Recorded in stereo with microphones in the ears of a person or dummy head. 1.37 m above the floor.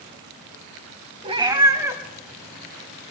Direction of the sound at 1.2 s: 35° right (ahead or behind).